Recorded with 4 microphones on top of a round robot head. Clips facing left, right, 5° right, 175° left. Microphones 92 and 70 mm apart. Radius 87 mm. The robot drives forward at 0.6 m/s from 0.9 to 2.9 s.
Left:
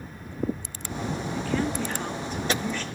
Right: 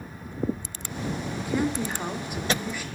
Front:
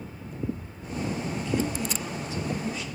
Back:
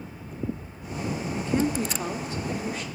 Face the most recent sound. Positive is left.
turn(degrees=-170)